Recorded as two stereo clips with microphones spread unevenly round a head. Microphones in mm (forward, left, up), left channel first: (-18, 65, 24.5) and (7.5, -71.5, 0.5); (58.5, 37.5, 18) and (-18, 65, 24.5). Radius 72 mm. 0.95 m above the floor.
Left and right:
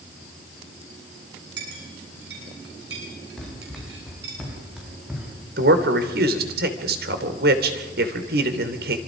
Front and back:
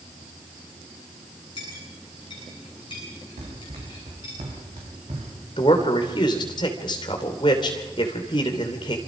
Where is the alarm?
No alarm in this recording.